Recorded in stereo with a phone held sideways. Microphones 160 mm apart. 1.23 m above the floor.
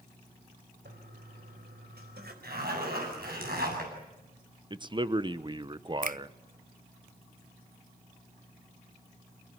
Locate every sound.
0.8 s a toilet flushing: 85° right, 4 m
2.4 s a zipper: 75° right (ahead or behind), 8 m
4.7 s a man speaking: 30° right (ahead or behind), 0.9 m
6.0 s a finger snap: 60° right (ahead or behind), 0.5 m